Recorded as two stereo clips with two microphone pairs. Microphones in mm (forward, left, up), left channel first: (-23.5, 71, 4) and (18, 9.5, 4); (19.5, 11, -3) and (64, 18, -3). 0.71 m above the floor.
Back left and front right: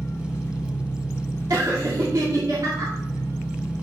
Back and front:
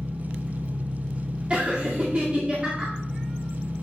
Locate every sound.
0.0 s an engine running: 70° left, 1.2 m
1.5 s laughter: 50° right, 2 m